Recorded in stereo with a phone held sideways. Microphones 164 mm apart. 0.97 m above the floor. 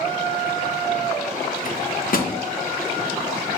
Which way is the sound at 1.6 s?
60° left (ahead or behind).